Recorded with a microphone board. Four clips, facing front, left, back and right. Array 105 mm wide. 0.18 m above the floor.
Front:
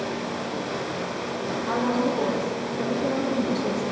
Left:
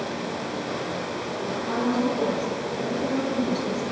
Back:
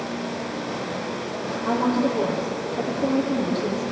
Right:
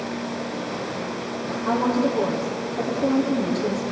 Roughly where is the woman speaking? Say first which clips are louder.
Right 4 dB, back 3 dB; behind right.